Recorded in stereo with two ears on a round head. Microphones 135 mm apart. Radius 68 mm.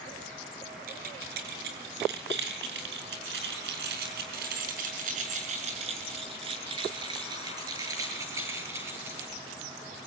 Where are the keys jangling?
70° right (ahead or behind), 7.5 m; by 9.3 s 15° right (ahead or behind), 10 m.